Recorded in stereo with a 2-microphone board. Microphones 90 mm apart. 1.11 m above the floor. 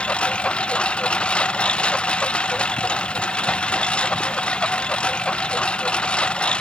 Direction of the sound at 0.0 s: 10° left (ahead or behind).